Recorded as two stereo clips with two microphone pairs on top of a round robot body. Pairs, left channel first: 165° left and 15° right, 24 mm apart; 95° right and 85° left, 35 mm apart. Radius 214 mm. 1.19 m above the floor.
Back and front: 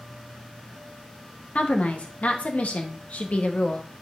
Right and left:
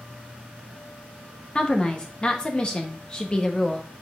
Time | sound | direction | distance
1.6 | a woman speaking | 165° right | 0.9 m